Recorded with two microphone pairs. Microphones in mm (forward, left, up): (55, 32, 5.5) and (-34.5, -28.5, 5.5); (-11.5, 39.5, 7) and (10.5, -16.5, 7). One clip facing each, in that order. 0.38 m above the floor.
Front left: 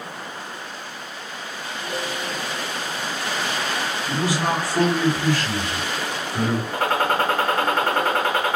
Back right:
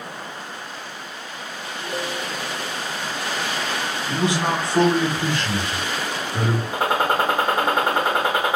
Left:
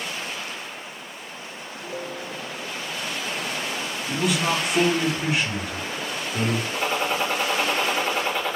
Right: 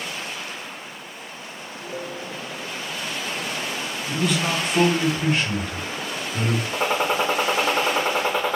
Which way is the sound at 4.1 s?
175° right.